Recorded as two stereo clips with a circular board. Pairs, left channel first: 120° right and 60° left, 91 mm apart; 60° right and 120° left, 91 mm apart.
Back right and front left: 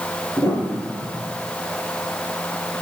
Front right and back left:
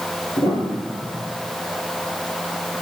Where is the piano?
75° right, 4 m.